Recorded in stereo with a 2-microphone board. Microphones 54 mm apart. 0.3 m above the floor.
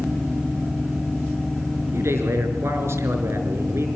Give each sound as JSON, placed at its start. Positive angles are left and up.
{"t": 1.9, "sound": "a man speaking", "side_deg": -55, "distance_m": 5.0}